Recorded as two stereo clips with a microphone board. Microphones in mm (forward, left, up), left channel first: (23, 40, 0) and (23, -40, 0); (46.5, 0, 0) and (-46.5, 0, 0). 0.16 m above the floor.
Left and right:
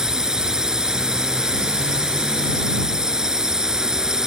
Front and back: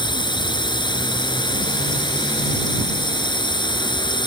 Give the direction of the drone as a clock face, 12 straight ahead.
12 o'clock.